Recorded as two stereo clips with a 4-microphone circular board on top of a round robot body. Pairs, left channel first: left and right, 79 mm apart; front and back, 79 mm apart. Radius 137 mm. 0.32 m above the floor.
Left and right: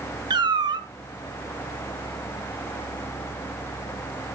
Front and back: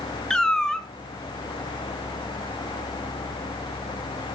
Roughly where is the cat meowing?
Right.